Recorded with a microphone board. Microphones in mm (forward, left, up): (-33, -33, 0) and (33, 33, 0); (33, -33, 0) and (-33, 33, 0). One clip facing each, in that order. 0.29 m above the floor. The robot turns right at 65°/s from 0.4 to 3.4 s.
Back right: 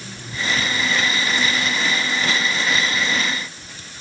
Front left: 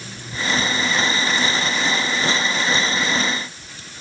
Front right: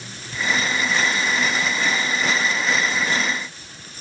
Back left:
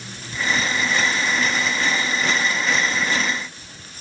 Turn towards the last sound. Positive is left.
No sound to turn to.